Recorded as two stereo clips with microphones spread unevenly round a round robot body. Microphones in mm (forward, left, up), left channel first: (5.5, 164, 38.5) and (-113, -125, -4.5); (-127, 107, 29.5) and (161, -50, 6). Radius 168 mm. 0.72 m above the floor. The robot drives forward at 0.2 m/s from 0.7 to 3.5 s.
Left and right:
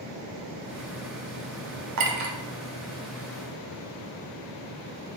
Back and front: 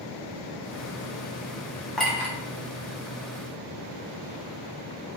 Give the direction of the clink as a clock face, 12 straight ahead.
4 o'clock.